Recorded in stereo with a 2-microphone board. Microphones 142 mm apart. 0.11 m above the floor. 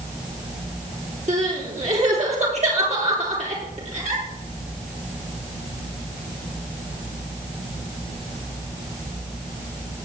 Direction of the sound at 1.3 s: 50° right (ahead or behind).